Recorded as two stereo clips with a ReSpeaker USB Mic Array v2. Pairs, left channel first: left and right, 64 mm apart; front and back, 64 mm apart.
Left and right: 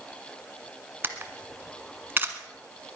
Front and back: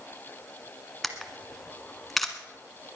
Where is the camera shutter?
85° right, 1.3 m.